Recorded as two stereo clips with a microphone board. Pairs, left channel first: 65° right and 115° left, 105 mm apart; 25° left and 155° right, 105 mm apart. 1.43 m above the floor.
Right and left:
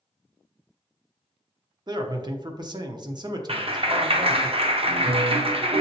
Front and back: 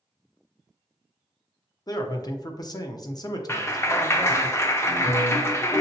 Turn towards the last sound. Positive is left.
turn(degrees=85)